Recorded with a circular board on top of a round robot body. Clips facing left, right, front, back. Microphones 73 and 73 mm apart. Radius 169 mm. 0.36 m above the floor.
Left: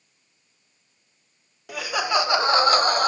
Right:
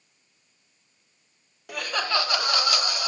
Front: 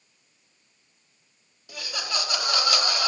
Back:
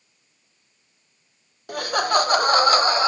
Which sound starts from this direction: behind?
Laughter, at 1.7 s.